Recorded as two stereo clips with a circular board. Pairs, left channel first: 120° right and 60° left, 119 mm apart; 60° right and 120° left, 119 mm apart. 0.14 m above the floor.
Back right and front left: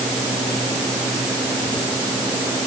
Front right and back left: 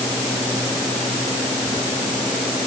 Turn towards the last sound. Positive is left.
No sound to turn to.